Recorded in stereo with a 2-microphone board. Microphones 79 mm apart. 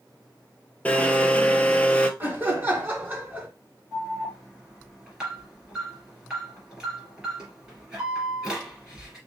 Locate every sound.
0.8 s a blender: 20° left (ahead or behind), 0.7 m
2.2 s laughter: 25° right (ahead or behind), 1.5 m
3.9 s an alarm: 10° right (ahead or behind), 2 m